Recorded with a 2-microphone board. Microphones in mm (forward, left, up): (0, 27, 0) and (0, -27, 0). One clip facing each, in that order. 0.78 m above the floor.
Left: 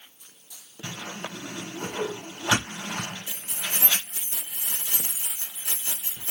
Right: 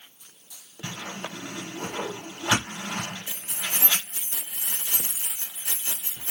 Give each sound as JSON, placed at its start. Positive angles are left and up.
{"t": 0.8, "sound": "a whoosh", "side_deg": -20, "distance_m": 3.5}
{"t": 3.3, "sound": "keys jangling", "side_deg": -25, "distance_m": 2.0}